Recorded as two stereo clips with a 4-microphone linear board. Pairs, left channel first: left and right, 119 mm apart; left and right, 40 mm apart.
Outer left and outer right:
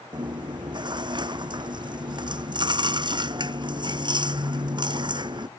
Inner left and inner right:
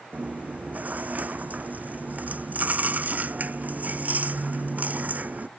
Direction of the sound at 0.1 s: 40° right (ahead or behind).